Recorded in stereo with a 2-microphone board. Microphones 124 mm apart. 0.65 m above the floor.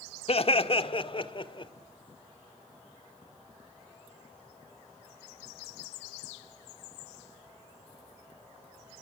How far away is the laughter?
About 1.6 m.